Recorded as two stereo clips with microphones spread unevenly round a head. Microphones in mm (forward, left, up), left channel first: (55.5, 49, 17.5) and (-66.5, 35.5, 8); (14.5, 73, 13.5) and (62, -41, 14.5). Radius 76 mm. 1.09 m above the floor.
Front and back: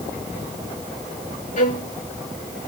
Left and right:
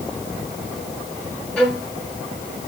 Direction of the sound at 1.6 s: 25° left.